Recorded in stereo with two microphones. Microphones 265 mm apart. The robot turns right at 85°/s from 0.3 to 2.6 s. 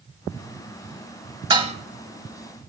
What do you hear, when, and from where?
1.5 s dishes clattering: 15° right (ahead or behind), 0.7 m; by 1.8 s 25° right (ahead or behind), 0.7 m